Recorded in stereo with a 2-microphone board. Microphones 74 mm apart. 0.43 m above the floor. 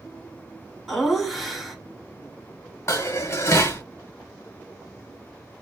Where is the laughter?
Centre (ahead or behind), 1.4 m.